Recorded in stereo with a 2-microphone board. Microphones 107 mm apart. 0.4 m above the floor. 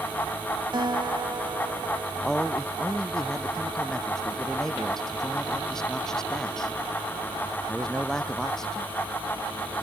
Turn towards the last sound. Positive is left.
turn(degrees=5)  # may be behind; listen again after turning